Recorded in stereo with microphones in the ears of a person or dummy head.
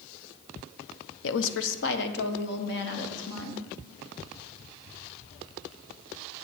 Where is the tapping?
I don't hear tapping.